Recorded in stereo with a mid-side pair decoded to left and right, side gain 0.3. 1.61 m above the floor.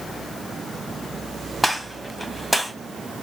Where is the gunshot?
10° left, 1.2 m.